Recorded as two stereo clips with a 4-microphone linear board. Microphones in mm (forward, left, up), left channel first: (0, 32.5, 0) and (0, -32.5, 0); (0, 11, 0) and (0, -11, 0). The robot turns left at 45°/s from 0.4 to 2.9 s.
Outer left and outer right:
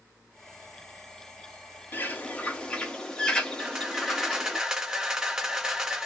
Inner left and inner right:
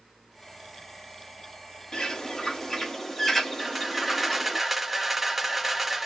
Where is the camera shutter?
10° right (ahead or behind), 0.8 m.